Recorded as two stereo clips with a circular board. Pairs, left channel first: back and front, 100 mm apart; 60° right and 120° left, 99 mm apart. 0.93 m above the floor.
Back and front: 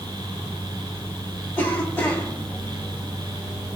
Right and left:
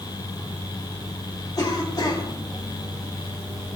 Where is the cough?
115° right, 7.5 m.